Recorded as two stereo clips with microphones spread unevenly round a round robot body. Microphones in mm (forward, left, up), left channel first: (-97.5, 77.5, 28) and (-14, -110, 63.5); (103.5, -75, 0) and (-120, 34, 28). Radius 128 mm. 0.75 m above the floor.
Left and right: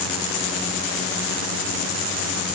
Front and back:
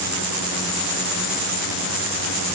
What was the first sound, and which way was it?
Only background noise.